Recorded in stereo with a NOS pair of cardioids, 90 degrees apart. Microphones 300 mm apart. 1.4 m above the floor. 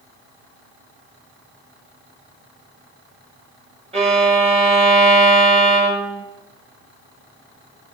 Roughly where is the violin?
Ahead.